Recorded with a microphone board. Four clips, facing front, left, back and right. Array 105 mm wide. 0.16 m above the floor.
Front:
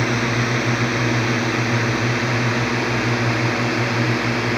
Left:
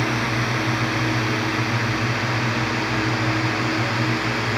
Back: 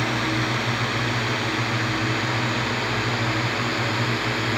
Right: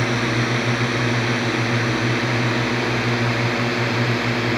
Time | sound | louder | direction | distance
0.0 | a drone | right 2 dB, front 3 dB | 40° right | ?